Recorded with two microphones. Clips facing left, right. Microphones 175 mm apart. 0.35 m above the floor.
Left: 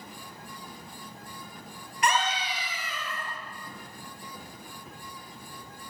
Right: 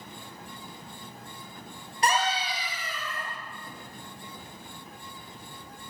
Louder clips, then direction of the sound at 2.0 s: Right 1 dB; 35° right (ahead or behind).